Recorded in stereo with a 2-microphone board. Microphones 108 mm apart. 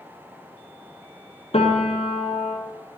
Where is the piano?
70° left (ahead or behind), 1.2 m.